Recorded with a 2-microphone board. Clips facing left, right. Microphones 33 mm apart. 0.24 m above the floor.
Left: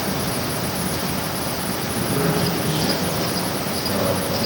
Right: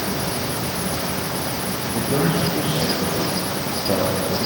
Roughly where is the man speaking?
Right.